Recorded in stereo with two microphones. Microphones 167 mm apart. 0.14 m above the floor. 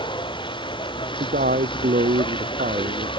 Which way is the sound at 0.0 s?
30° left (ahead or behind).